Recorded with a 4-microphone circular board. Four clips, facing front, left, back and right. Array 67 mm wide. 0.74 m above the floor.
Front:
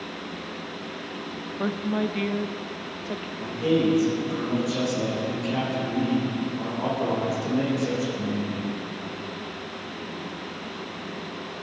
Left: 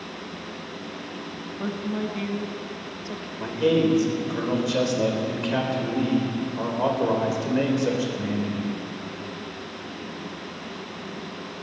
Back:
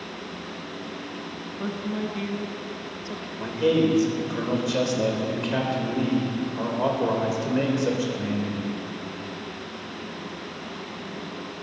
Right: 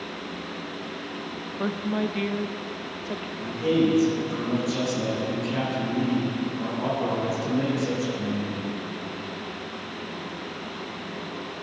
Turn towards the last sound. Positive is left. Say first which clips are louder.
# left 2 dB, back 2 dB
turn(degrees=135)